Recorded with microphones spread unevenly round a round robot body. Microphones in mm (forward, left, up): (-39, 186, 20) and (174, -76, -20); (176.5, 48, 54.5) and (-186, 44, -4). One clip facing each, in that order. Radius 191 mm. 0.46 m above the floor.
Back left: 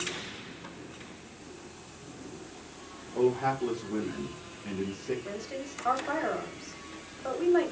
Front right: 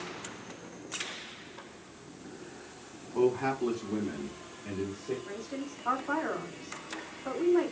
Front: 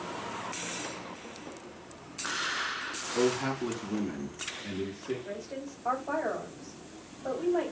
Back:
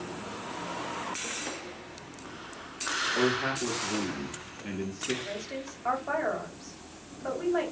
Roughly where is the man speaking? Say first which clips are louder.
Even, front 1 dB; ahead right.